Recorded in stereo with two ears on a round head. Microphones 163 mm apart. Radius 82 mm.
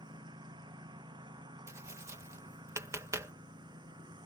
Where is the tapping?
15° right (ahead or behind).